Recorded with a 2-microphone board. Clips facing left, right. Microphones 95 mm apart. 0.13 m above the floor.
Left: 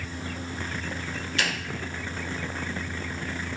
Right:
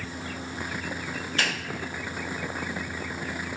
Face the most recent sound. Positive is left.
turn(degrees=-40)  # may be behind; listen again after turning